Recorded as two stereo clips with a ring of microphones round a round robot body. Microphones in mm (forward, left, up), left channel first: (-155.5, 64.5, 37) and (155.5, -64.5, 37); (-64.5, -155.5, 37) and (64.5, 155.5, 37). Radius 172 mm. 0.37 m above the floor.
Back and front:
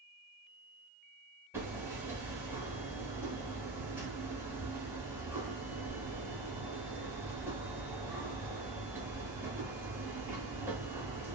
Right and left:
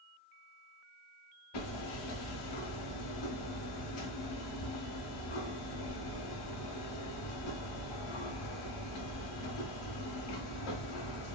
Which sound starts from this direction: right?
Hammering, at 1.5 s.